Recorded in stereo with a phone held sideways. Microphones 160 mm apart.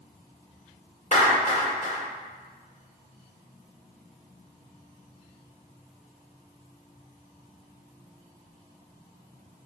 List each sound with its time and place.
1.1 s a clap: 45° left (ahead or behind), 2.0 m